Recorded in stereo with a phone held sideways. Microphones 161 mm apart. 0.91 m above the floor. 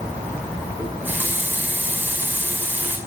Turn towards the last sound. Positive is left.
turn(degrees=-10)  # may be behind; listen again after turning